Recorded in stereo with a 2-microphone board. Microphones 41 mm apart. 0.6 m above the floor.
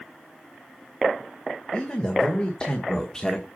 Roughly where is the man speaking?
Left.